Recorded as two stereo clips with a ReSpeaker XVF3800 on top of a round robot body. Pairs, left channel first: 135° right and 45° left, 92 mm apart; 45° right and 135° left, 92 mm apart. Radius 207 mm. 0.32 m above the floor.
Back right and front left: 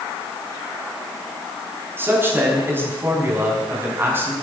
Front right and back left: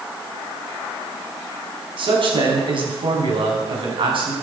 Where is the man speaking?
110° left, 5.5 m.